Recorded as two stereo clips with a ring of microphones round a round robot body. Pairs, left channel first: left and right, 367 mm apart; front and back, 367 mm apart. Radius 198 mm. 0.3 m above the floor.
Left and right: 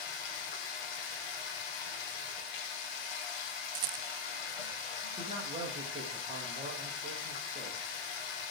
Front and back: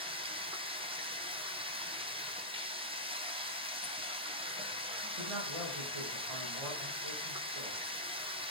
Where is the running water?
105° left, 3.5 m.